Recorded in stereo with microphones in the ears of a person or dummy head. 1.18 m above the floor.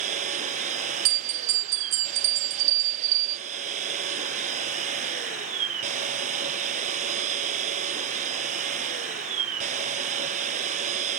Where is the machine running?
45° right (ahead or behind).